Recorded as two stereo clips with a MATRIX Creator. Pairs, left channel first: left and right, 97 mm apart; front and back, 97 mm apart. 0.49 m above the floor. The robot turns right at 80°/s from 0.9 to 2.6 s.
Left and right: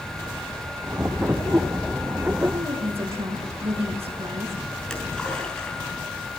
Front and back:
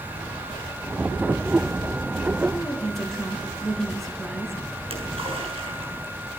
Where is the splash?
170° left, 7 m.